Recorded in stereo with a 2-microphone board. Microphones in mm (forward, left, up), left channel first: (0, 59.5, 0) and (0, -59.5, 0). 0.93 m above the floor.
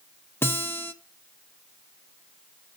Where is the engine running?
No engine running in this recording.